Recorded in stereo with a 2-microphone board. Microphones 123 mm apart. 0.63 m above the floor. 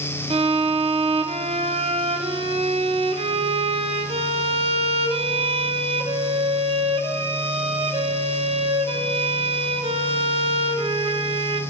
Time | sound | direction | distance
0.3 | a violin | 55° right (ahead or behind) | 0.5 m